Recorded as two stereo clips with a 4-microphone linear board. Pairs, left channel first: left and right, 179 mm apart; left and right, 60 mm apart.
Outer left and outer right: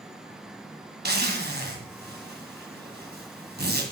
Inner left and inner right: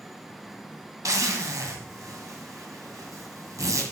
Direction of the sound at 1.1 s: 65° right (ahead or behind).